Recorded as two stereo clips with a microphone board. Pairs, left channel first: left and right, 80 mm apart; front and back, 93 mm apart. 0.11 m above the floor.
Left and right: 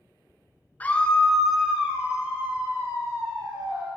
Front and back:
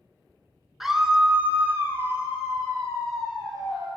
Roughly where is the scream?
Left.